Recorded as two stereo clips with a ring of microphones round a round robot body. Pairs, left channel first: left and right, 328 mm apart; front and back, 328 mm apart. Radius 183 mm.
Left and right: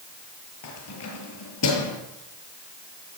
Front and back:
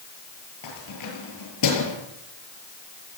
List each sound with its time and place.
0.6 s keys jangling: 40° left, 7 m